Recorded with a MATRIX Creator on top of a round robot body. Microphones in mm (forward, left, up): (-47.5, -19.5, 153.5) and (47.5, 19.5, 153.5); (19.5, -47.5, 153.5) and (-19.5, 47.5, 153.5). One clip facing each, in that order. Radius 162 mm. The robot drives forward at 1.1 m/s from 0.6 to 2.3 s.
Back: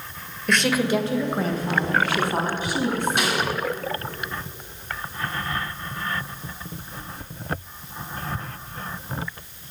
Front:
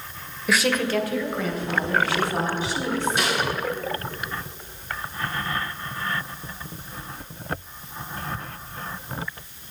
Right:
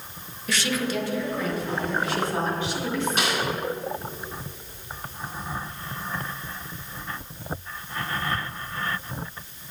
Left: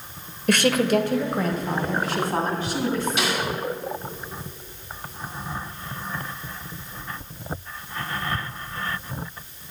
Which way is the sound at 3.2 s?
120° right.